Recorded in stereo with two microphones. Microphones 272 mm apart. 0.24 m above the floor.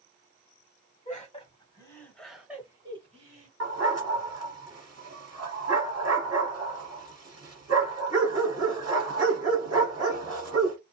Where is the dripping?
I don't hear dripping.